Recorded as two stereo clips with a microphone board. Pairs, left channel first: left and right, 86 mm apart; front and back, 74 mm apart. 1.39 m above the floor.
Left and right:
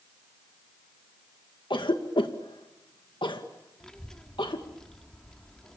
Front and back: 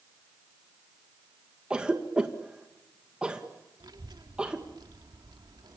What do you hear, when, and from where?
1.7 s a cough: 105° left, 2.0 m
3.8 s a child speaking: 170° left, 2.0 m